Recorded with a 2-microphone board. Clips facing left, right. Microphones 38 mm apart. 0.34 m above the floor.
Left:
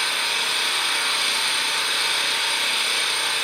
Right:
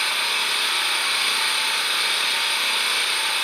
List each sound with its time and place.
0.0 s an engine running: 20° right (ahead or behind), 1.2 m